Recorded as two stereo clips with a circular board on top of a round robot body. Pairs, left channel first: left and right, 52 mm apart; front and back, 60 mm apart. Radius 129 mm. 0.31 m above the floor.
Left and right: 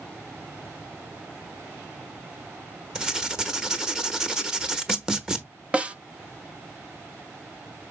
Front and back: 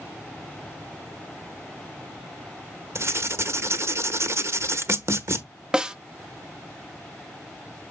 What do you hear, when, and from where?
3.0 s writing: 165° right, 1.2 m
5.7 s a snare drum: 120° right, 0.9 m